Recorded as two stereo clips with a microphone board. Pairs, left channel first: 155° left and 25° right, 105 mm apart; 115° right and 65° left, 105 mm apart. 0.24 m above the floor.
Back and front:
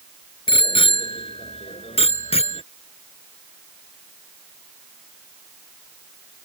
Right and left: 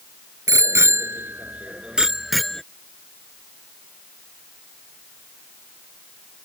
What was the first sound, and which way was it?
A bicycle bell, 125° left.